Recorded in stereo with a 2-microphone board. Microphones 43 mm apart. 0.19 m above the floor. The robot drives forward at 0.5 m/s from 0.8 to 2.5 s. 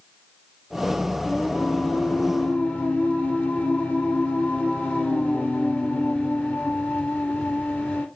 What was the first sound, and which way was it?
Singing, 25° left (ahead or behind).